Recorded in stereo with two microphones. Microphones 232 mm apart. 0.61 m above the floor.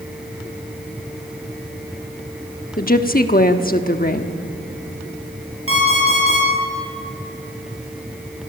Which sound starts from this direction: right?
An alarm clock, at 5.7 s.